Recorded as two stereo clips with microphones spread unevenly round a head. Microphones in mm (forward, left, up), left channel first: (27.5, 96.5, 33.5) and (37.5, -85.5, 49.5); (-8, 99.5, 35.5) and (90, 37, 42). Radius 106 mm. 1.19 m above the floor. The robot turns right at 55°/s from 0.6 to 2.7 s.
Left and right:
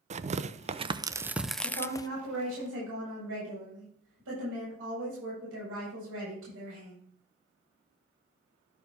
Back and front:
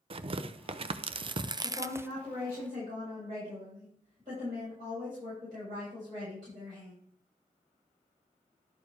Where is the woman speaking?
160° right, 7 m; by 7.0 s 100° right, 7 m.